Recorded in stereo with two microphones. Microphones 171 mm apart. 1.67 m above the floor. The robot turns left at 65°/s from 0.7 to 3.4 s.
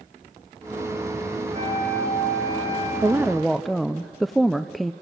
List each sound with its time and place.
1.5 s a flute: 45° right, 9 m; by 2.9 s 140° right, 9 m
3.0 s a woman speaking: 20° right (ahead or behind), 0.5 m; by 4.9 s centre (ahead or behind), 0.5 m